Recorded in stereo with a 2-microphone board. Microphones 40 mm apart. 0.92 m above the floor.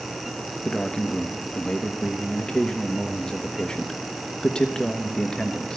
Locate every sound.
0.7 s a man speaking: 20° left (ahead or behind), 1.1 m